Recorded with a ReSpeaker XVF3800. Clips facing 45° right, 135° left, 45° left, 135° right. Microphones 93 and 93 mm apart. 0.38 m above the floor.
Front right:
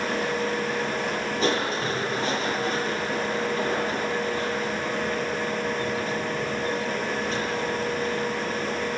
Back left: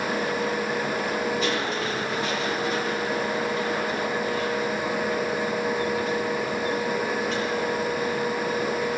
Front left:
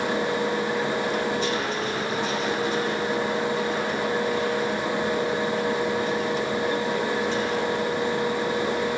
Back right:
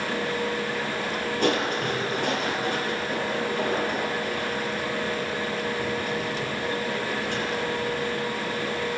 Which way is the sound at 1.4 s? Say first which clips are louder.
Front right 1 dB, back right 2 dB; 100° right.